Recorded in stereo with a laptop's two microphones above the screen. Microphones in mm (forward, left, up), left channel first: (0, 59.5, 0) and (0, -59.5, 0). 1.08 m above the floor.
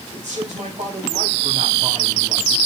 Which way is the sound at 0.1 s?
80° right.